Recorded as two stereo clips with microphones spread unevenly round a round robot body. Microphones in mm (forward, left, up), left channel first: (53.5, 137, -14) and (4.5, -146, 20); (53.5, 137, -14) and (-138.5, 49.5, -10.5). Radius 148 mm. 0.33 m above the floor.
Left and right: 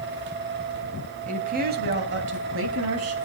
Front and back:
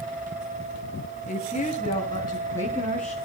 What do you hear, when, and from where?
1.3 s a woman speaking: 35° right, 2.5 m; by 3.1 s 60° right, 3.5 m